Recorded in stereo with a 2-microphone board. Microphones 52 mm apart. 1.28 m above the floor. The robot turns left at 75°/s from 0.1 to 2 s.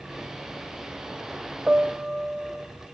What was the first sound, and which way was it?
A piano, 25° right (ahead or behind).